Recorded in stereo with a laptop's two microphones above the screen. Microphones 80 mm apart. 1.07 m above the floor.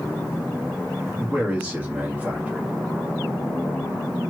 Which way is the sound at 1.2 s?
20° right (ahead or behind).